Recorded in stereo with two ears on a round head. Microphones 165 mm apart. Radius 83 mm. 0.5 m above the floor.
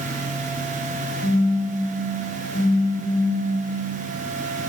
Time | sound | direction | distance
1.2 | a phone buzzing | 55° left (ahead or behind) | 2.5 m